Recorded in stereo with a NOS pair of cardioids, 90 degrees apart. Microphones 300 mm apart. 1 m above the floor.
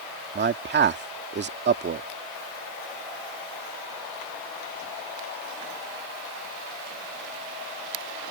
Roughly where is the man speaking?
Ahead right.